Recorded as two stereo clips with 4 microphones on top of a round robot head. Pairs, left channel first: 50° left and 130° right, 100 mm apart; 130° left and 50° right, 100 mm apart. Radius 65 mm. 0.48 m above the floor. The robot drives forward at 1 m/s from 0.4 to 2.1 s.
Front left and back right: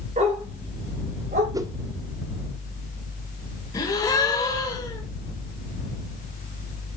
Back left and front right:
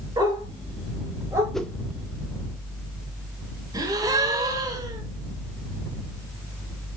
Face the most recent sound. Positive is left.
turn(degrees=0)